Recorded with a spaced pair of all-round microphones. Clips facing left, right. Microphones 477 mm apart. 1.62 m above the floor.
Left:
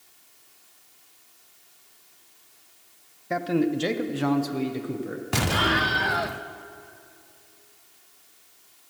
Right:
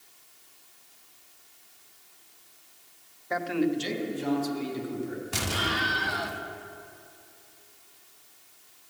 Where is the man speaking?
45° left (ahead or behind), 0.8 m; by 5.2 s 85° left, 1.6 m.